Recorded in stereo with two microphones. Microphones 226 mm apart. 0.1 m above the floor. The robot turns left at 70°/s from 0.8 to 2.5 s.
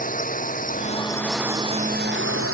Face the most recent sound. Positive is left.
turn(degrees=-80)